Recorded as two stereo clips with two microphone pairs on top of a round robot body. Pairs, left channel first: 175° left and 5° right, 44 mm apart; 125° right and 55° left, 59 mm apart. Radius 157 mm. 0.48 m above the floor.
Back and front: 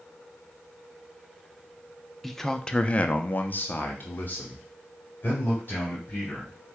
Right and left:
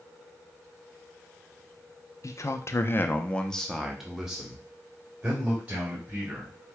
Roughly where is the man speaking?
Right.